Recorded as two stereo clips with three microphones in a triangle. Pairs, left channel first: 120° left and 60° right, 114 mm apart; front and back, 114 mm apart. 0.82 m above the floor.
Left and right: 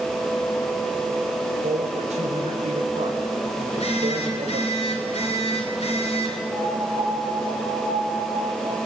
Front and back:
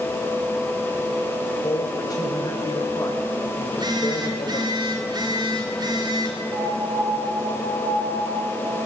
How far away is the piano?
About 5.5 m.